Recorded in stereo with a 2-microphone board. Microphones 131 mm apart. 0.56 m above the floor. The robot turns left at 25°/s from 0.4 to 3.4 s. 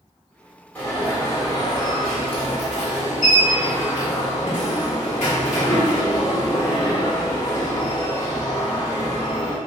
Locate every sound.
0.8 s an alarm: 165° left, 1.3 m; by 9.6 s 100° left, 1.3 m